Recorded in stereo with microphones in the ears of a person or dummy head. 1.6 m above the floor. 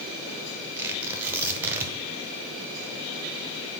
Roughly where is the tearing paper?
Centre.